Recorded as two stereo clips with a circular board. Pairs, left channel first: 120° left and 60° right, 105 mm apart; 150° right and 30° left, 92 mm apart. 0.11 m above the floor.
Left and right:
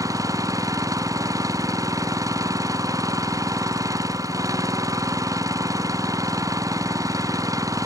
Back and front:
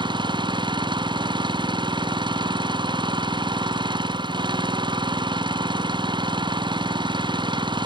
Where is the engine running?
Straight ahead.